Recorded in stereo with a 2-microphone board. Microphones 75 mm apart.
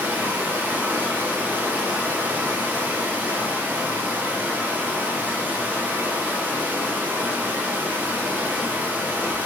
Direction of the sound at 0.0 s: 25° right (ahead or behind).